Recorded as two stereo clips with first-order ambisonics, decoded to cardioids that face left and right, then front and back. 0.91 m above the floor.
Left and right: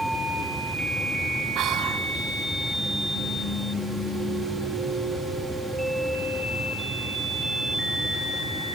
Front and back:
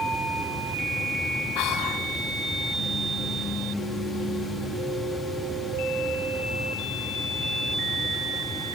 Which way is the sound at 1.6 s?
30° right.